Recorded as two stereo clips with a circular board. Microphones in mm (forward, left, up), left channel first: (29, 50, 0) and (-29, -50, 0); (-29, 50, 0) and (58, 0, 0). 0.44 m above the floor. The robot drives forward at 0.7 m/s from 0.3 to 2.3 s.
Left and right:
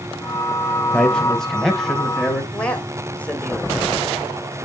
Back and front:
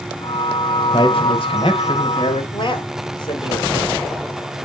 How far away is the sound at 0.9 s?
About 1.7 m.